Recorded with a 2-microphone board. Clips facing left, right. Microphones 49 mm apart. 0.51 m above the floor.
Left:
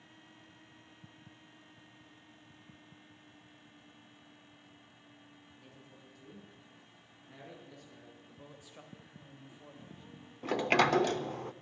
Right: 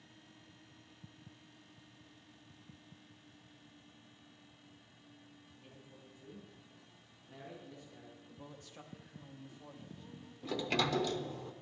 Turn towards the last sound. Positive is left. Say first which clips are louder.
# left 7 dB
turn(degrees=55)  # may be behind; listen again after turning